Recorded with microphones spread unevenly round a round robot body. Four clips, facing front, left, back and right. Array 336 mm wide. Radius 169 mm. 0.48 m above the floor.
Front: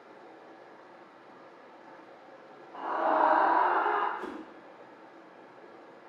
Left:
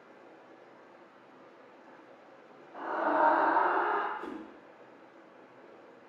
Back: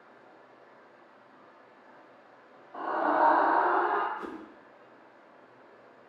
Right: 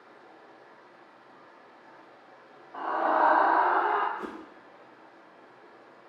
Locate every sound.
0.0 s running water: 5° left, 1.7 m
2.7 s a scream: 165° right, 1.5 m
4.2 s a whoosh: 110° right, 3 m